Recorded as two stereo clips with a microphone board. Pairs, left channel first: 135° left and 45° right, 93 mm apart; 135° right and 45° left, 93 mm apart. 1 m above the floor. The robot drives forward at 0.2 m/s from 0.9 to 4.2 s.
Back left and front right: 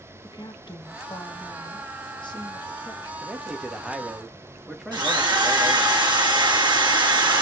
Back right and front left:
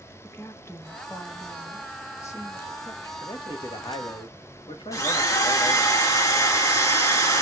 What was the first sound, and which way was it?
A woman speaking, 165° left.